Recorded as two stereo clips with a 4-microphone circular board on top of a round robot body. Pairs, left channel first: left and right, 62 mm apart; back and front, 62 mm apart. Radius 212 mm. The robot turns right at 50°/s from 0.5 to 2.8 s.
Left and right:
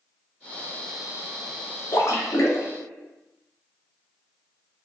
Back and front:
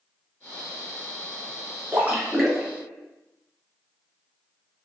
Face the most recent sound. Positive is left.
turn(degrees=100)